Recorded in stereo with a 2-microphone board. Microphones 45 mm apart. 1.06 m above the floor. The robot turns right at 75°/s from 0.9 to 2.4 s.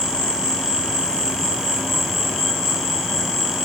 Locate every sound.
0.0 s an insect: 165° right, 5.5 m; by 3.7 s 55° right, 5.5 m